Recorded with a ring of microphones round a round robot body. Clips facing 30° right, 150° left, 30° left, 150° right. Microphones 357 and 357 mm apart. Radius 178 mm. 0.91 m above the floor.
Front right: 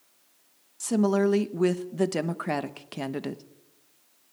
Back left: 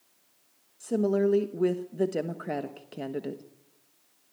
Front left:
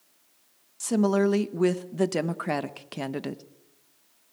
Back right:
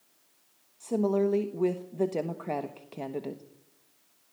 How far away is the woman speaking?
About 1.1 m.